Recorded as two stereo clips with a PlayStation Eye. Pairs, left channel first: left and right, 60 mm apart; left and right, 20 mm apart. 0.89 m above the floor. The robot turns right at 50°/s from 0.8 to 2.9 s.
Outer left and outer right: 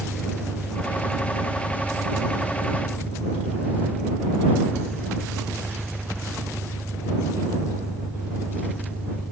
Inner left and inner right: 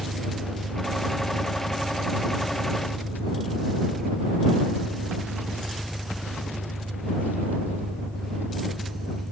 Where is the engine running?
120° right; by 9.3 s 15° right.